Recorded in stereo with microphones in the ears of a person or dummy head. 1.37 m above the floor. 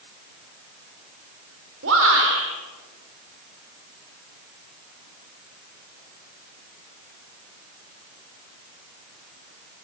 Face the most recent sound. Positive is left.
turn(degrees=-80)